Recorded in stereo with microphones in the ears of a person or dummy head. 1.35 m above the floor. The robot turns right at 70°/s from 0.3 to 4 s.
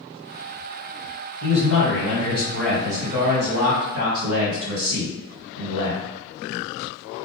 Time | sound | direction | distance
1.4 | a man speaking | 95° left | 1.3 m